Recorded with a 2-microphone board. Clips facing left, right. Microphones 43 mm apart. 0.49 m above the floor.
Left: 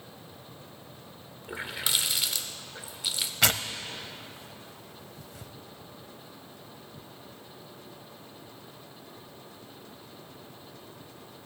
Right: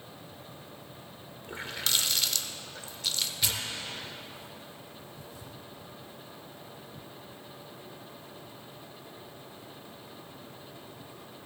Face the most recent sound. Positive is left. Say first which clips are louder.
# left 6 dB
turn(degrees=85)